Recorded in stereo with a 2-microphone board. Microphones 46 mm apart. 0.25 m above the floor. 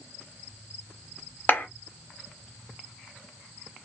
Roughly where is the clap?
Left.